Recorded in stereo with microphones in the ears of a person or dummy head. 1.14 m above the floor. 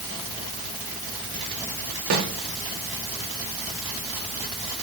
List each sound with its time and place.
2.1 s a snare drum: 80° right, 4.5 m